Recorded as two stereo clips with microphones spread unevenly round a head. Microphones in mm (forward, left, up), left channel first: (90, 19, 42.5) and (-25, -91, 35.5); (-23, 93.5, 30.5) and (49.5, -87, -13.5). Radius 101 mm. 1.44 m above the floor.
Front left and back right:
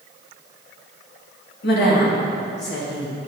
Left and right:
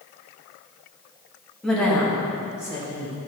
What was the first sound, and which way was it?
A woman speaking, 25° left.